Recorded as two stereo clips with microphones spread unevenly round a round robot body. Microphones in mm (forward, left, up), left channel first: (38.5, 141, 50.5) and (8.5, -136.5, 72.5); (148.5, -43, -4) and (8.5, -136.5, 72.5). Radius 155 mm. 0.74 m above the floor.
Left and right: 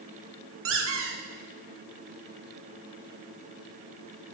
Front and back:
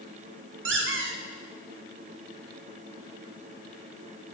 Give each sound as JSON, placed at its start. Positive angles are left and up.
{"t": 0.7, "sound": "a squeak", "azimuth_deg": -145, "distance_m": 1.0}